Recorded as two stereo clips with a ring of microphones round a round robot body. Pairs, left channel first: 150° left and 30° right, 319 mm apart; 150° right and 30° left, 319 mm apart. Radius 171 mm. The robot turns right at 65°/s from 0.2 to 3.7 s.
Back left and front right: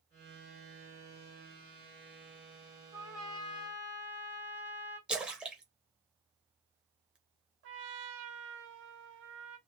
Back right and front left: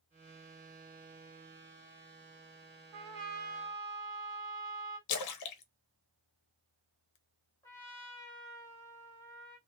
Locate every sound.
2.9 s a trumpet: 40° left, 0.8 m; by 5.0 s 95° left, 0.8 m
5.1 s a splash: 115° right, 0.6 m
7.6 s a trumpet: 70° right, 0.6 m